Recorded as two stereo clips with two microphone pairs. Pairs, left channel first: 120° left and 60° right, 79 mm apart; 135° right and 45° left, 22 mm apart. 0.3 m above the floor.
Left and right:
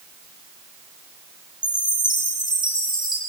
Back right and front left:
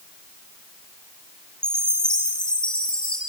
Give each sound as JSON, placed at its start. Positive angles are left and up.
{"t": 1.6, "sound": "a chime", "azimuth_deg": -95, "distance_m": 7.0}